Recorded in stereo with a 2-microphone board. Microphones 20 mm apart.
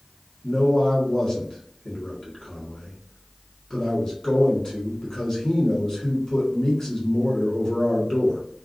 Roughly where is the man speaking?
Left.